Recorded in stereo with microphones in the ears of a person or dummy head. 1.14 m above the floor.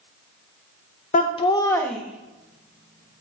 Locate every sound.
1.1 s laughter: 40° left (ahead or behind), 0.7 m; by 3.2 s 35° right (ahead or behind), 1.0 m